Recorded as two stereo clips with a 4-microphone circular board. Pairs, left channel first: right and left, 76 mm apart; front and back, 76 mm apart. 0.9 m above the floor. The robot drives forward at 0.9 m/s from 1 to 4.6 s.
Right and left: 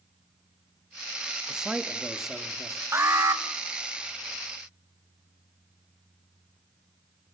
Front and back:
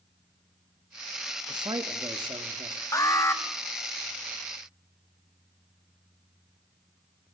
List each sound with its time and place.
1.5 s a man speaking: 170° left, 1.0 m; by 2.8 s 175° left, 2 m
2.9 s an alarm: 40° left, 1.5 m; by 3.4 s 55° left, 1.2 m